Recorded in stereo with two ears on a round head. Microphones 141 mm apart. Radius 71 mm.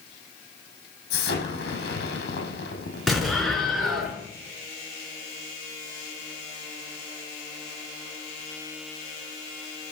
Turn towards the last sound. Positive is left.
turn(degrees=0)  # may be behind; listen again after turning